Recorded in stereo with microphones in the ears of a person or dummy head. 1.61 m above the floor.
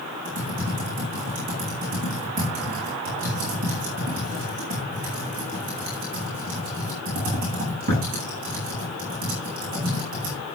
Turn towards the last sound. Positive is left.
turn(degrees=-50)  # may be behind; listen again after turning